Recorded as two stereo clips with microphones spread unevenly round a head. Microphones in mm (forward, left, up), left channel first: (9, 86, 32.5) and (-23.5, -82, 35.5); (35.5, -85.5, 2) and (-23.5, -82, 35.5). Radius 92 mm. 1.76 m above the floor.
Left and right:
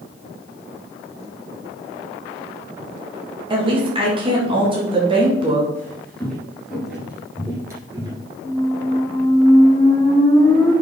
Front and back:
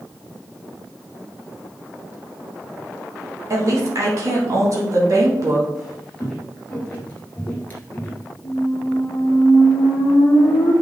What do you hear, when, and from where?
3.5 s a woman speaking: 160° right, 1.9 m
5.8 s footsteps: 150° left, 1.9 m; by 8.3 s 90° right, 1.8 m
8.4 s a squeak: 15° left, 1.7 m